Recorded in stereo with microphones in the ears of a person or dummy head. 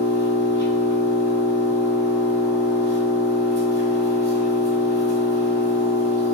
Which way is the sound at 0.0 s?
20° right (ahead or behind).